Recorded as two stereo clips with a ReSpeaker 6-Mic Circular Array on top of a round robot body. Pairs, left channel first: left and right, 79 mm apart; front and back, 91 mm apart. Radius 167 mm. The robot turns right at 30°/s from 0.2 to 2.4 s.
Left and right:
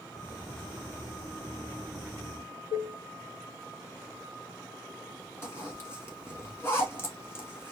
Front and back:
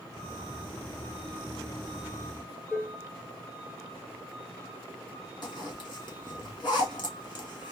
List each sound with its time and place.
2.7 s dishes clattering: 90° left, 0.6 m
5.4 s a zipper: 35° left, 2 m